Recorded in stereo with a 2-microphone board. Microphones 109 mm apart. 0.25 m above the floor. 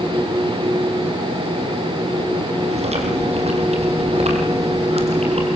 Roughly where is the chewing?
Right.